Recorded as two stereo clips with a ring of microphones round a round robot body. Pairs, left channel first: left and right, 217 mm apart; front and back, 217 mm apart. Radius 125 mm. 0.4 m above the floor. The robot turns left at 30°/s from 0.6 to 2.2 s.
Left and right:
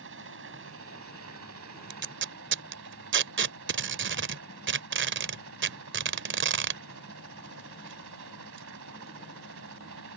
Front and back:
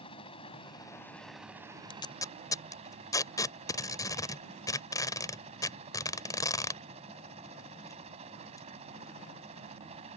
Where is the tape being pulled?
65° right; by 9.6 s 75° right.